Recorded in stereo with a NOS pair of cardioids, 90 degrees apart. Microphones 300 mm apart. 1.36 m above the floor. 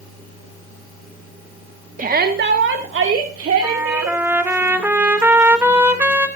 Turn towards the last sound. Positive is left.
turn(degrees=-5)